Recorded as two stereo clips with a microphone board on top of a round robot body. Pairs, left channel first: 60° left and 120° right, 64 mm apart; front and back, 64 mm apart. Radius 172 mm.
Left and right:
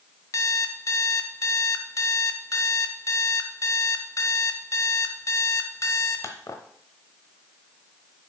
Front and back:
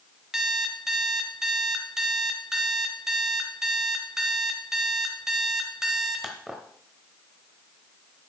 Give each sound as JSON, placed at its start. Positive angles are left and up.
{"t": 0.3, "sound": "an alarm clock", "azimuth_deg": 100, "distance_m": 0.9}